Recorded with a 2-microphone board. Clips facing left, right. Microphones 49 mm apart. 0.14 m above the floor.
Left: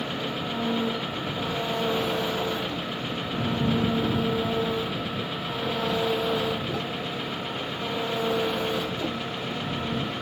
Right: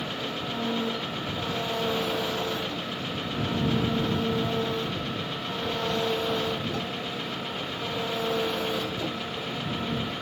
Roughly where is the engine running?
Centre.